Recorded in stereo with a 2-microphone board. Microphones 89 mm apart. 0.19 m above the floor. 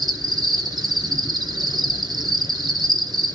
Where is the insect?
55° right (ahead or behind), 1.9 m.